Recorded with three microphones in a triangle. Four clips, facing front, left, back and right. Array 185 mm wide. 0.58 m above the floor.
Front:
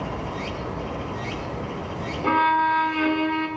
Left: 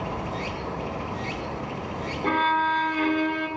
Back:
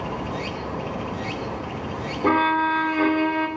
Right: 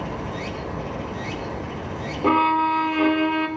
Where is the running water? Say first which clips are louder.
Right 1 dB, back 1 dB; 160° right, 4.5 m.